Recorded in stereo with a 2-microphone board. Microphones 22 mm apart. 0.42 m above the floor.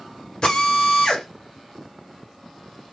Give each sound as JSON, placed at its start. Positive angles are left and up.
{"t": 0.4, "sound": "a drill", "side_deg": 50, "distance_m": 2.0}